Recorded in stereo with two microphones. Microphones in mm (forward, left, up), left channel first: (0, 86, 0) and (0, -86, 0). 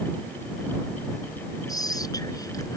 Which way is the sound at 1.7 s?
20° left (ahead or behind).